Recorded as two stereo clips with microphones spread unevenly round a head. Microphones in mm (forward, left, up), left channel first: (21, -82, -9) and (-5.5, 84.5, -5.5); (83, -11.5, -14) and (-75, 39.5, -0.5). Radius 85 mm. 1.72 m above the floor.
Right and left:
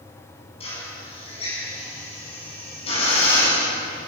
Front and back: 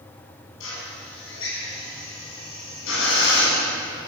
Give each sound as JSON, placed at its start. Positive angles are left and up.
{"t": 0.6, "sound": "a drill", "azimuth_deg": -25, "distance_m": 8.5}